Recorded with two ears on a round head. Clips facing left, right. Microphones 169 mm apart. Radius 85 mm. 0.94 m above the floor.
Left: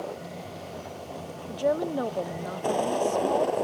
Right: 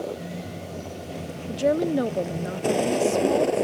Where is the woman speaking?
30° right (ahead or behind).